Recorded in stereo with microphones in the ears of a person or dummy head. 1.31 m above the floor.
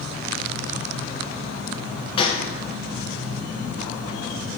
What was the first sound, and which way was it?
A gunshot, 30° left (ahead or behind).